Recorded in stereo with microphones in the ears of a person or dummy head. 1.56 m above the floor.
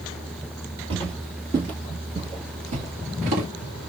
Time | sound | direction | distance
0.9 | footsteps | 30° right (ahead or behind) | 2.5 m